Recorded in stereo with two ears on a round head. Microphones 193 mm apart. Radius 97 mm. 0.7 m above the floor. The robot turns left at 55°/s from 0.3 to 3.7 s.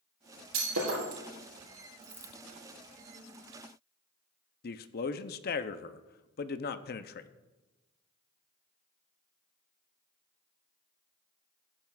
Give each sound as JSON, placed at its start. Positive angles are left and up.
{"t": 0.5, "sound": "breaking glass", "side_deg": -85, "distance_m": 5.0}
{"t": 2.0, "sound": "a dropped coin", "side_deg": -5, "distance_m": 1.5}
{"t": 4.6, "sound": "a man speaking", "side_deg": 45, "distance_m": 0.6}